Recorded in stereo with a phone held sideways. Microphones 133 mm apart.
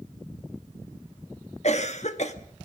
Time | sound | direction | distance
1.6 | a cough | 55° left (ahead or behind) | 1.8 m